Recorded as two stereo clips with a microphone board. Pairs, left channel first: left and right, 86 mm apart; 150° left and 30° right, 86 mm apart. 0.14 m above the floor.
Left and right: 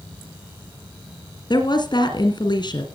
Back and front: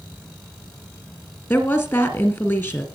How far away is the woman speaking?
About 2.5 m.